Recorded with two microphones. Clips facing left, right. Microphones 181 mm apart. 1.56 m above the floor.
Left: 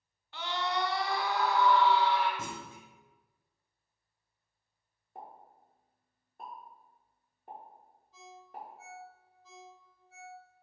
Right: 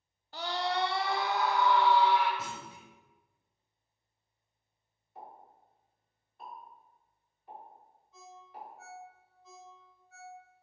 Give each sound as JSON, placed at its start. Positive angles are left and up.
{"t": 0.3, "sound": "a scream", "side_deg": -40, "distance_m": 0.6}
{"t": 2.4, "sound": "a clunk", "side_deg": 50, "distance_m": 0.6}
{"t": 5.2, "sound": "a pop", "side_deg": 55, "distance_m": 1.5}
{"t": 8.1, "sound": "a ringtone", "side_deg": 35, "distance_m": 1.3}